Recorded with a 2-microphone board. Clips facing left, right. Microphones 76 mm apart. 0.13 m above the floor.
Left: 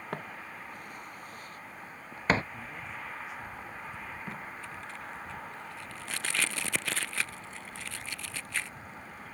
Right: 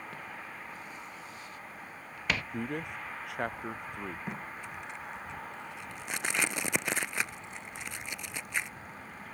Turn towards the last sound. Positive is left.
turn(degrees=-20)  # may be behind; listen again after turning